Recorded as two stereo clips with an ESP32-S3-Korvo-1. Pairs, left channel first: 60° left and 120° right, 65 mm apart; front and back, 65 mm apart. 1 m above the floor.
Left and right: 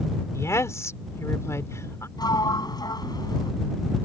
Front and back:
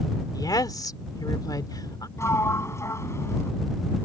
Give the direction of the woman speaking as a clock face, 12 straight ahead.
11 o'clock.